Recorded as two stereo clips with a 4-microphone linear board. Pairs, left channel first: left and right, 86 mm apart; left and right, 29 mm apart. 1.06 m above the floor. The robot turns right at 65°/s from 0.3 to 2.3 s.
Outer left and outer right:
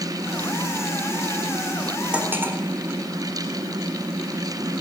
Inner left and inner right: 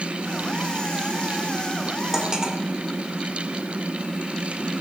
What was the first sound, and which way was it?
Cutlery clinking, 10° right (ahead or behind).